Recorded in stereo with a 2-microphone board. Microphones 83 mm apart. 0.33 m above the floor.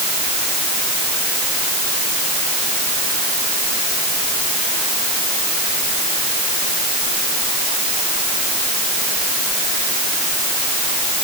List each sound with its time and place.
Only background noise.